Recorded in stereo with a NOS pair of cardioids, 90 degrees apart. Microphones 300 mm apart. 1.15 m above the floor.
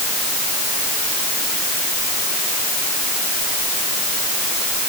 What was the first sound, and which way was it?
Only background noise.